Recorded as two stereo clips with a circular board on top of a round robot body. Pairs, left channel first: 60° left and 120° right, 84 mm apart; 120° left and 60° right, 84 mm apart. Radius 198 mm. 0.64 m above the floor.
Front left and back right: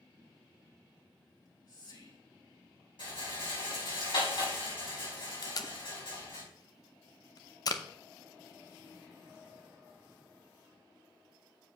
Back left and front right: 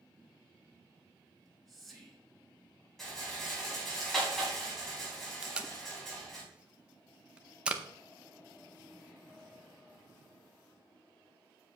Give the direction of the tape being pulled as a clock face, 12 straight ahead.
11 o'clock.